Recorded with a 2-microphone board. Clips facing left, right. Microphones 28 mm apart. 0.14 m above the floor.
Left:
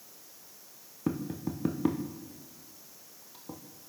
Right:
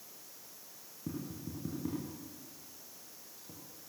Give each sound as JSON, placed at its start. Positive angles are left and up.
{"t": 1.1, "sound": "tapping", "side_deg": 60, "distance_m": 3.0}